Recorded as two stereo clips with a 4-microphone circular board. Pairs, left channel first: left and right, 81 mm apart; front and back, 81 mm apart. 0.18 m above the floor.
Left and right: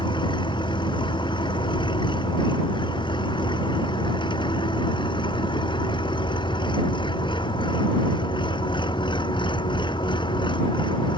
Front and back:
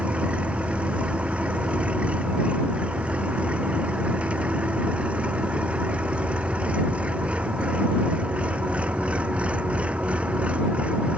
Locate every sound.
0.0 s an engine running: 105° left